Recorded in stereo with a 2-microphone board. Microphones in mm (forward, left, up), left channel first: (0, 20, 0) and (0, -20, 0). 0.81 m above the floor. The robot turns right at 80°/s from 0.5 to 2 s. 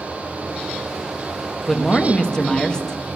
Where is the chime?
I don't hear a chime.